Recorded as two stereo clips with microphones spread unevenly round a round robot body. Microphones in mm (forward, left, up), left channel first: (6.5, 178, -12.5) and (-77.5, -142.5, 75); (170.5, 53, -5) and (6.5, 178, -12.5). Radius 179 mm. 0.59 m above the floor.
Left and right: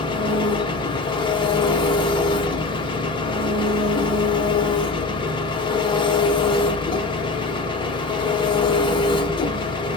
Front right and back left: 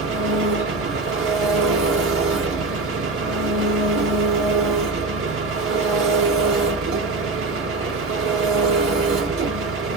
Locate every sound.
0.0 s an engine running: 145° left, 0.8 m